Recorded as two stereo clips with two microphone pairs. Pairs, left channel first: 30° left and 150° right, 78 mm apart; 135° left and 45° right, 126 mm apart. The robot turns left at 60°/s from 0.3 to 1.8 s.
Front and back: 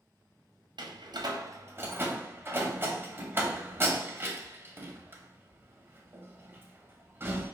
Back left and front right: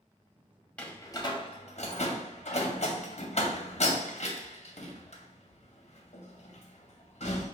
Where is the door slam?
145° right, 0.7 m; by 7.5 s 155° left, 0.7 m.